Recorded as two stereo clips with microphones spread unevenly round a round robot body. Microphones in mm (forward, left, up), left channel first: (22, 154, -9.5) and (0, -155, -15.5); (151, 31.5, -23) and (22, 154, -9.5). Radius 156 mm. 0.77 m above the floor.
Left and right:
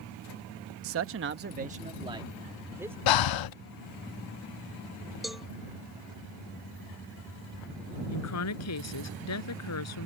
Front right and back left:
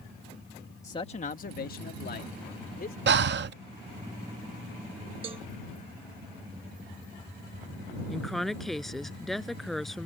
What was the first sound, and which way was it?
A man speaking, 110° right.